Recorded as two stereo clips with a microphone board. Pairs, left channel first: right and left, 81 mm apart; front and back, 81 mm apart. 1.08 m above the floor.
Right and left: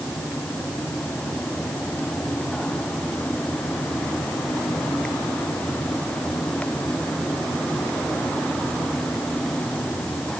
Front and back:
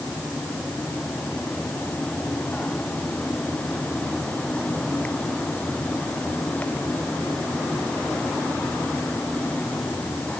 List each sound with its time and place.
Only background noise.